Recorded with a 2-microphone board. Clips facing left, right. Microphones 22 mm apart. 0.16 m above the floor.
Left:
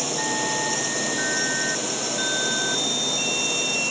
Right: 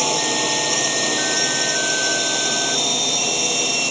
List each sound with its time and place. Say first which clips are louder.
0.0 s a drone: right 5 dB; 35° right (ahead or behind)